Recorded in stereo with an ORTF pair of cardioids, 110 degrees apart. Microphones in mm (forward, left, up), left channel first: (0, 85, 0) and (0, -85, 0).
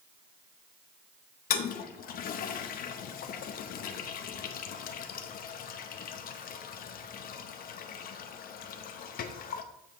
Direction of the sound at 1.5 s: 60° left.